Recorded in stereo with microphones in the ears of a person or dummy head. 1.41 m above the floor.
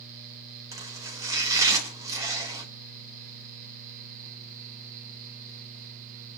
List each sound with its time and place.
0.7 s chopping: 25° right (ahead or behind), 3 m